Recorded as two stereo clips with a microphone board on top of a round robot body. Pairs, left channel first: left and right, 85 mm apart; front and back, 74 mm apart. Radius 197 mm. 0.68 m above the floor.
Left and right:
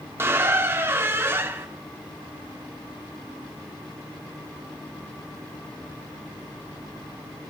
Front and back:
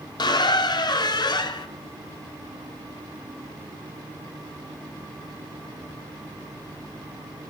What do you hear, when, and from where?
0.2 s a squeak: 25° right, 0.8 m